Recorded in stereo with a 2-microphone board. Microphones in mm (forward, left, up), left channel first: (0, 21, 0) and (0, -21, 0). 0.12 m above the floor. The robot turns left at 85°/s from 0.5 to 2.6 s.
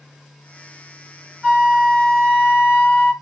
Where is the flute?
120° right, 1.7 m; by 3.1 s 140° left, 1.7 m.